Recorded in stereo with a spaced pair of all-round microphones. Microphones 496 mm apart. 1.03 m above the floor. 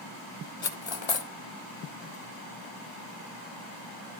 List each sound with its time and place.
0.6 s cutlery clinking: 60° left (ahead or behind), 0.8 m